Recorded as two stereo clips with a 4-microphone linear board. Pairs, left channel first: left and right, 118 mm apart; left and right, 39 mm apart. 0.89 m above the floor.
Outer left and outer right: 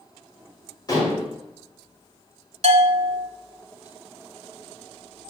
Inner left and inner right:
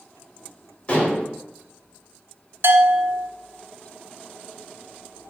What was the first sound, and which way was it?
Dishes clattering, 35° left (ahead or behind).